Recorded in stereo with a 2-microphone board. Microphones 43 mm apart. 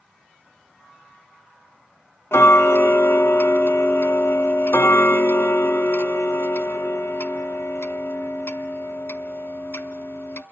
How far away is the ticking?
About 1.4 m.